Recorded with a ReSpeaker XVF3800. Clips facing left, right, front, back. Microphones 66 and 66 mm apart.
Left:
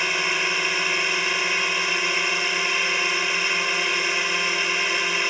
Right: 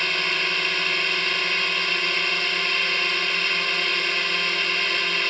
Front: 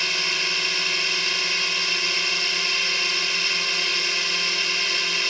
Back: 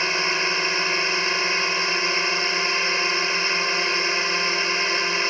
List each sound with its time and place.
0.0 s a drone: 160° left